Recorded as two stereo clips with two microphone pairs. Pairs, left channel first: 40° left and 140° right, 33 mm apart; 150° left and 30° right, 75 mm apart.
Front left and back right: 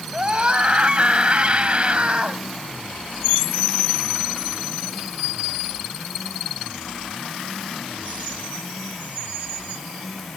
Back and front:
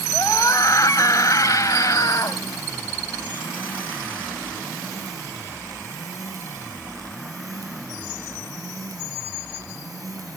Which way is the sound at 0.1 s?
175° left.